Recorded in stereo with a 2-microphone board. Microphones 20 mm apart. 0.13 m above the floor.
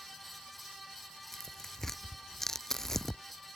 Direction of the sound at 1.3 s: 15° left (ahead or behind).